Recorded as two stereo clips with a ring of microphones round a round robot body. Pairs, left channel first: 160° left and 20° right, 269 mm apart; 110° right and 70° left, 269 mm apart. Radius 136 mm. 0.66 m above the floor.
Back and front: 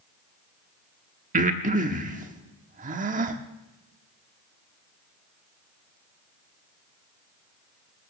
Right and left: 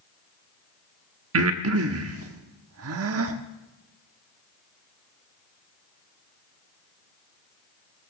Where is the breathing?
35° left, 1.1 m.